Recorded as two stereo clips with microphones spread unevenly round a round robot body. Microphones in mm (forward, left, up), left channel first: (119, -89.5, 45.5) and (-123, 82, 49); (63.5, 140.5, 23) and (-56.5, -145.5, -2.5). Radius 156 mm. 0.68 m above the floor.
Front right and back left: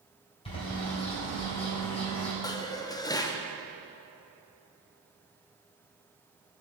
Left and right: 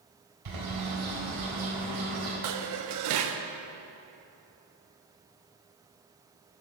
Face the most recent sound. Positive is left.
turn(degrees=-110)